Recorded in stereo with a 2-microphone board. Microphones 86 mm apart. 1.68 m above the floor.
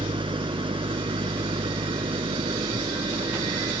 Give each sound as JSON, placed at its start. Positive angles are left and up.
{"t": 0.0, "sound": "an engine running", "side_deg": -85}